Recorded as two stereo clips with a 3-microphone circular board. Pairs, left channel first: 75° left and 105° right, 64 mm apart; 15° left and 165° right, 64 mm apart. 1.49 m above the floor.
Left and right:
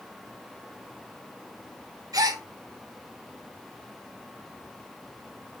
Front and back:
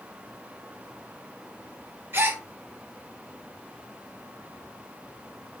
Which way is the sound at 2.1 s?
110° right.